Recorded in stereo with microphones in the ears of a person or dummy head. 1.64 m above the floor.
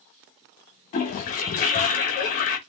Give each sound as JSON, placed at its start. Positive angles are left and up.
{"t": 0.9, "sound": "a toilet flushing", "side_deg": 35, "distance_m": 1.0}